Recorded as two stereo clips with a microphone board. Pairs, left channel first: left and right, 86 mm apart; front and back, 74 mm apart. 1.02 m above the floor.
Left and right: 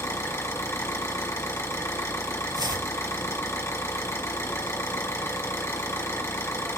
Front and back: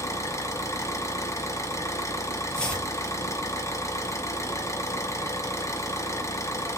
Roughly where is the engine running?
Ahead left.